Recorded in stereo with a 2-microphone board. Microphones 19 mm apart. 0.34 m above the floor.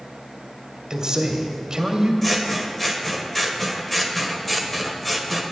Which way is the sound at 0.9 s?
40° right (ahead or behind).